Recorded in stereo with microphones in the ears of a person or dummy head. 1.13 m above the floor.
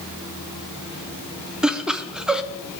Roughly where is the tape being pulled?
I don't hear tape being pulled.